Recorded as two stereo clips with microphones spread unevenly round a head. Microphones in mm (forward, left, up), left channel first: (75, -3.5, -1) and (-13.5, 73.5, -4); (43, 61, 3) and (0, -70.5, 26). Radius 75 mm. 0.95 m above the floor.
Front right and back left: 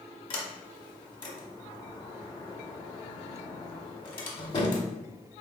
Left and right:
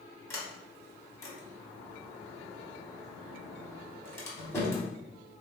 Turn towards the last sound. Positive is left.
turn(degrees=0)